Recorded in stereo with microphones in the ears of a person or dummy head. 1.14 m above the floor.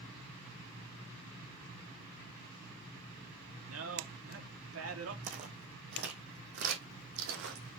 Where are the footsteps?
40° right (ahead or behind), 2.5 m; by 7.8 s 65° right (ahead or behind), 3 m.